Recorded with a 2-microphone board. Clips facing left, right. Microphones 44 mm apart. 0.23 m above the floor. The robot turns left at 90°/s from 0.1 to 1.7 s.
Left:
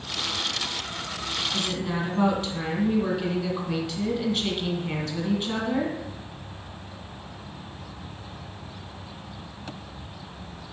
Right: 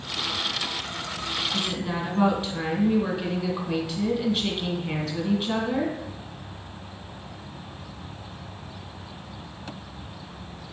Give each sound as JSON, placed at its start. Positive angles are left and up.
{"t": 1.5, "sound": "a woman speaking", "side_deg": -20, "distance_m": 1.3}